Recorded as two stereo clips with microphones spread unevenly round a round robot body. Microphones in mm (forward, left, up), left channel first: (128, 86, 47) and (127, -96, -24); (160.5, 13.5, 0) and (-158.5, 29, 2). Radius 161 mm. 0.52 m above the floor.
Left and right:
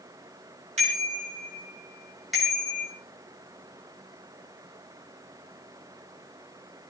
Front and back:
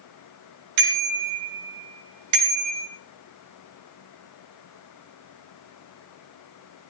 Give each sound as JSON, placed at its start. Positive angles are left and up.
{"t": 0.8, "sound": "a bicycle bell", "azimuth_deg": -155, "distance_m": 3.5}